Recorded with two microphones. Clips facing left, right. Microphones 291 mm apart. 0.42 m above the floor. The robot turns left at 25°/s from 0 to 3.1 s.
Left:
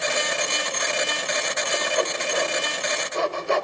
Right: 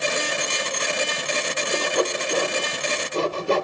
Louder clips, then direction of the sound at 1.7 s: Right 3 dB; 50° right (ahead or behind).